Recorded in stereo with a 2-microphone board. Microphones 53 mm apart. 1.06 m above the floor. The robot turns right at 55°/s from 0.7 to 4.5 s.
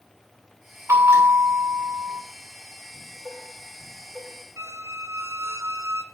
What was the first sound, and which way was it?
A bell, 115° right.